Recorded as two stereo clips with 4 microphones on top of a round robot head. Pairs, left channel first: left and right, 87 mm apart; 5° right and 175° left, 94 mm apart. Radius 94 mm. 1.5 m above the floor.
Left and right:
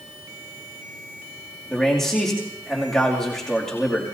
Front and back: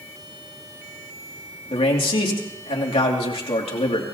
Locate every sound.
1.7 s a man speaking: 5° left, 3 m